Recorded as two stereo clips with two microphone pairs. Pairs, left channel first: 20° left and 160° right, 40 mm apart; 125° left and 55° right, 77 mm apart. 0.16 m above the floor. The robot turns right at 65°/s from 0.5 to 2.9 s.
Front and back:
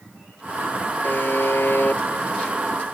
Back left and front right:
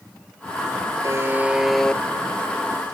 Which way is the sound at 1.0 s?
10° right.